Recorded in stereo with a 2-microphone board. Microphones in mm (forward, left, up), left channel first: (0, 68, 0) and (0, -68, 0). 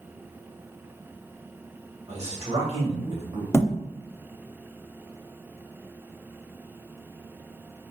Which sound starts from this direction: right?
A man speaking, at 2.1 s.